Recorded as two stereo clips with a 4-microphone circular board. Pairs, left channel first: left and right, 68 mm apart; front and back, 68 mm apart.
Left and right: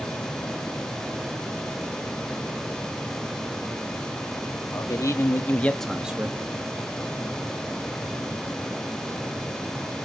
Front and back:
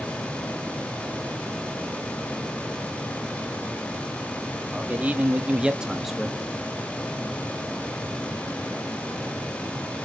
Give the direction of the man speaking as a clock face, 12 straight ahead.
8 o'clock.